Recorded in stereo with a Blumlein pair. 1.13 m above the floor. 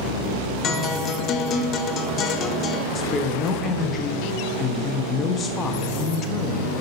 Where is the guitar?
30° left, 0.7 m.